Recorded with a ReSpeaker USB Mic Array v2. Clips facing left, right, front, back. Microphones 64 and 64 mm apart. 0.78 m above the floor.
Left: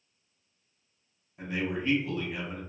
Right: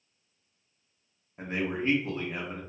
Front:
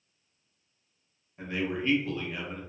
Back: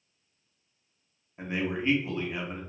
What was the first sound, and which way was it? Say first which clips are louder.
A man speaking: right 1 dB, back 1 dB; 120° right.